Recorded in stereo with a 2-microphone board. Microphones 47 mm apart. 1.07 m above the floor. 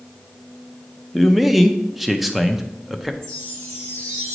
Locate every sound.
1.1 s a man speaking: centre (ahead or behind), 0.7 m
3.2 s a chime: 70° right (ahead or behind), 3.5 m